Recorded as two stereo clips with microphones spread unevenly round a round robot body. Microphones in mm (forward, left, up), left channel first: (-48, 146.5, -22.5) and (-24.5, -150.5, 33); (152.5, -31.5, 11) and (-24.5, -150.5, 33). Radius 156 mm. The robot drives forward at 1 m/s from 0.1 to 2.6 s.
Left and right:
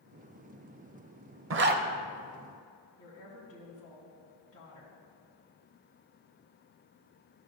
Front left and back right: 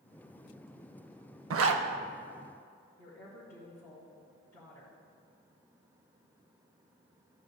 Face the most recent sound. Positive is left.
turn(degrees=135)